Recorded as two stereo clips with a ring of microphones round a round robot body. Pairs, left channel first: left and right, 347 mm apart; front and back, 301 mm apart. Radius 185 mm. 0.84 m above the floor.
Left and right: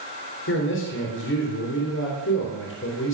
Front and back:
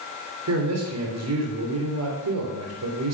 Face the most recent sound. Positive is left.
turn(degrees=145)